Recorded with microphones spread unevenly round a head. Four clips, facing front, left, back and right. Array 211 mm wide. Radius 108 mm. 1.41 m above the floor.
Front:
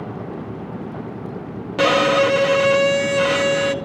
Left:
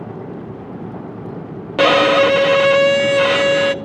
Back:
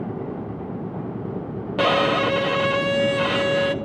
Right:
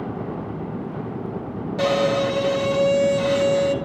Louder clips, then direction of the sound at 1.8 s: Left 8 dB, front 4 dB; 70° left.